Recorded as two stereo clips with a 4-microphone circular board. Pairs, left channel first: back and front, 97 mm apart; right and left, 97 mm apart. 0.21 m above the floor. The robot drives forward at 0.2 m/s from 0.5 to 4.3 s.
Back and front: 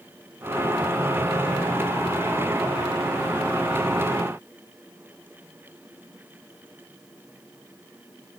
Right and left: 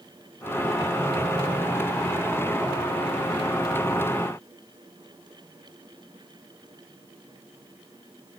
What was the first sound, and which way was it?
Only background noise.